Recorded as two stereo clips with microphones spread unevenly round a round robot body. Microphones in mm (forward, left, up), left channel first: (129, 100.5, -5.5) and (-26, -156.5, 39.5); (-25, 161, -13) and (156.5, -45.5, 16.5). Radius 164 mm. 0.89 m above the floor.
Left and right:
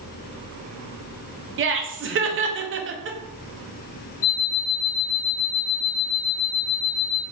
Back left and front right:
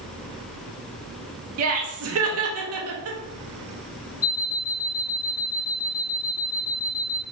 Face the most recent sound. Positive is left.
turn(degrees=100)